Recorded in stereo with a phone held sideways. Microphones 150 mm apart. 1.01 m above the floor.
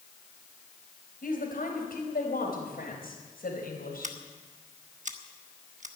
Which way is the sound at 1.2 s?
70° left (ahead or behind).